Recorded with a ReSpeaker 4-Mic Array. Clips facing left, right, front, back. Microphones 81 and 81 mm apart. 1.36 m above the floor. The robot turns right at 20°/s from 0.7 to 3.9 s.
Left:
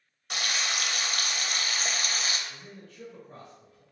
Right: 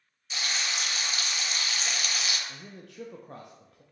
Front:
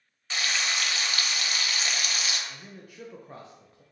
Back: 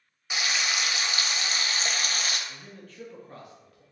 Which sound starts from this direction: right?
A man speaking, at 2.5 s.